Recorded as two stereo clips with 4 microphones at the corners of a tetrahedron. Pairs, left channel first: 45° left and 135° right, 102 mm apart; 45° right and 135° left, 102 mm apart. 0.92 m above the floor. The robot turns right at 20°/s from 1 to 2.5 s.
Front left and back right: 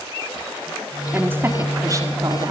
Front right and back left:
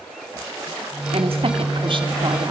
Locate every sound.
1.1 s a woman speaking: 155° left, 2.5 m; by 2.5 s straight behind, 2.5 m